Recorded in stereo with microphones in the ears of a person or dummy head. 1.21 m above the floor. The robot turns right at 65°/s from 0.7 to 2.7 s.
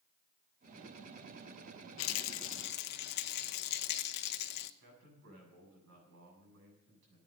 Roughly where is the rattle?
Left.